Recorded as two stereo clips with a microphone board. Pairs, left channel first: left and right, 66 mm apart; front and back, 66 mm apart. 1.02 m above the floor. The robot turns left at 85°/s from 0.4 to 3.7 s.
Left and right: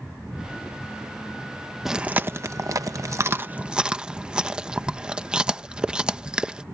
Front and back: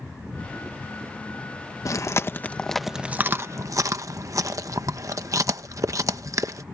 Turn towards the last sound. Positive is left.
turn(degrees=-165)